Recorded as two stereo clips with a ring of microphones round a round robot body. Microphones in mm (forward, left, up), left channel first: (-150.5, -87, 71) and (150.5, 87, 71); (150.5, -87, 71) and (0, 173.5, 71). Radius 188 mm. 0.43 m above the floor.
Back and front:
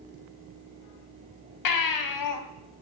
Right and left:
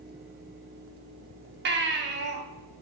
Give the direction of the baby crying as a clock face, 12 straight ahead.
6 o'clock.